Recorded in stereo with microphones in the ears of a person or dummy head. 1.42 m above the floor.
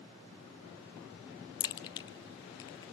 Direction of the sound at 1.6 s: 25° left (ahead or behind).